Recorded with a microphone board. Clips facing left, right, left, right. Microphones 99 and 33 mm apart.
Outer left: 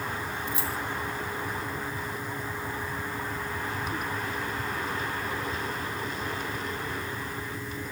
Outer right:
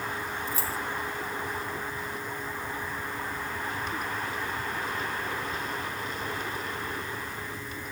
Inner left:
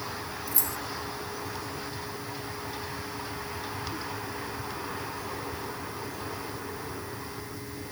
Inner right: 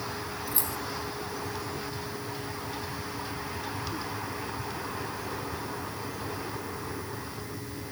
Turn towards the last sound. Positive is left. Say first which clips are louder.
# even, even
turn(degrees=-40)  # may be behind; listen again after turning